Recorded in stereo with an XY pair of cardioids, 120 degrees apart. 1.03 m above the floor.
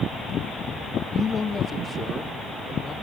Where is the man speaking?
35° left, 1.4 m; by 3.0 s 30° left, 3.5 m.